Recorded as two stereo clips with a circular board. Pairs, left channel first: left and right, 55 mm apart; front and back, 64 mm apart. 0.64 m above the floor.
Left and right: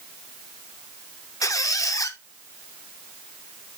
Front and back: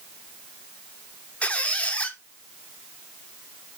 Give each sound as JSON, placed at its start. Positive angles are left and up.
{"t": 1.4, "sound": "a squeak", "azimuth_deg": 70, "distance_m": 0.6}